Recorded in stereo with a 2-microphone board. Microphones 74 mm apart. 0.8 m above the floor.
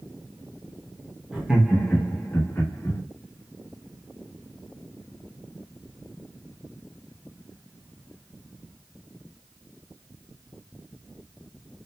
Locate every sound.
1.3 s laughter: 15° right (ahead or behind), 0.8 m; by 3.0 s 40° left (ahead or behind), 1.0 m